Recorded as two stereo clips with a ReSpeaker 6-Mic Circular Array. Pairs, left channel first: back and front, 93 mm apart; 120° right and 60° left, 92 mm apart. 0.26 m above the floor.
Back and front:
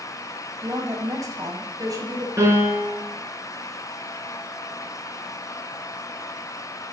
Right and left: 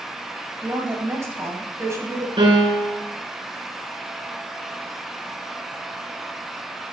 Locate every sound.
0.6 s a woman speaking: 20° left, 1.5 m
2.4 s a piano: 60° left, 2.5 m